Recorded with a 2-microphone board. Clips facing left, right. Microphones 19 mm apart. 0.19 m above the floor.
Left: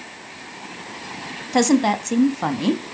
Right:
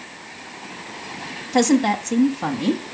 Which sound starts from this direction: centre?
A woman speaking, at 1.5 s.